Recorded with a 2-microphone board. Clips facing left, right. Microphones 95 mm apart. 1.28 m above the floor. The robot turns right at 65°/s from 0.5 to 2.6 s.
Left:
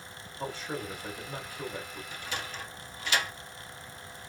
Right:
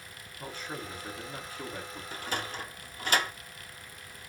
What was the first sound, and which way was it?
A man speaking, 80° left.